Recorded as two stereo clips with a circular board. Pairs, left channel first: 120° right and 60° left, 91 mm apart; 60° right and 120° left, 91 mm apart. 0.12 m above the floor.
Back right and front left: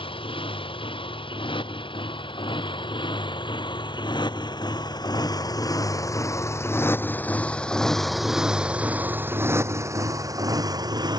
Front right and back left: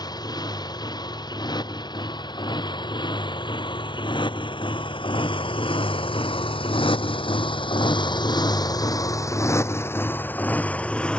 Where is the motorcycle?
100° right; by 11.2 s 20° left.